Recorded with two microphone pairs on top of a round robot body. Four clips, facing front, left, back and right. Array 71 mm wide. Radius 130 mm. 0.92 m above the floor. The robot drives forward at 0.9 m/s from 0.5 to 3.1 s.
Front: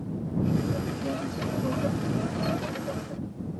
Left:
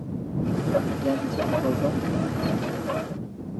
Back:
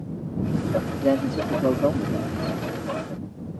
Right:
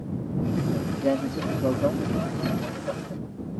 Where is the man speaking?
160° right; by 2.3 s 165° right.